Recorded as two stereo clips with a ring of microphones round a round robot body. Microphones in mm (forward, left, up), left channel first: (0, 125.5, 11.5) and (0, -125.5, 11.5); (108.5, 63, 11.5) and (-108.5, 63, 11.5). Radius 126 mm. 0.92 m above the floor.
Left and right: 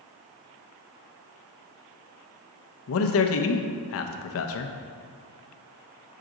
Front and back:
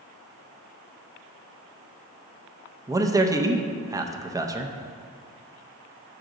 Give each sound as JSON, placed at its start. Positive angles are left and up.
{"t": 2.9, "sound": "a man speaking", "azimuth_deg": 105, "distance_m": 0.6}